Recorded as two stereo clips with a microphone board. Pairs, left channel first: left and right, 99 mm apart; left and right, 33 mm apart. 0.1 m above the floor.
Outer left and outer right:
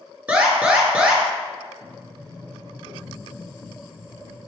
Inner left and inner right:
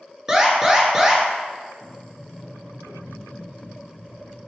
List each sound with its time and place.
0.3 s an alarm: 15° right (ahead or behind), 1.1 m
1.8 s a sliding door: 55° left (ahead or behind), 1.8 m